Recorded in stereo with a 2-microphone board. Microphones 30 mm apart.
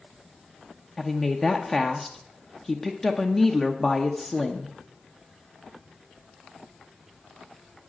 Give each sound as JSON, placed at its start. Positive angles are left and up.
{"t": 1.0, "sound": "a woman speaking", "side_deg": 10, "distance_m": 0.7}